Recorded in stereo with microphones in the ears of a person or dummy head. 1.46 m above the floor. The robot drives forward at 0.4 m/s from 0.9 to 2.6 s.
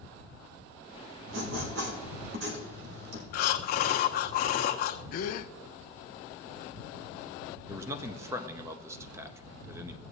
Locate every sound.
1.3 s writing: 70° right (ahead or behind), 1.8 m
3.3 s breathing: 60° left (ahead or behind), 0.9 m
5.1 s a gasp: 60° left (ahead or behind), 0.6 m
7.7 s a man speaking: 20° right (ahead or behind), 0.7 m